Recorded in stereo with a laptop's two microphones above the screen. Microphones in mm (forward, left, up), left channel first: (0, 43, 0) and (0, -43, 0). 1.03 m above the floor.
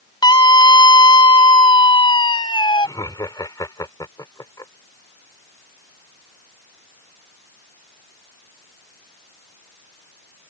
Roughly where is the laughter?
Left.